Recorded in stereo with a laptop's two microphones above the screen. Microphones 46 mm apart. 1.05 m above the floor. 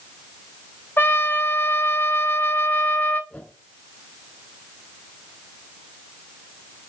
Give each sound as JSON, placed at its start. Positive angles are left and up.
{"t": 1.0, "sound": "a trumpet", "side_deg": 50, "distance_m": 0.9}
{"t": 3.3, "sound": "a whoosh", "side_deg": 25, "distance_m": 3.0}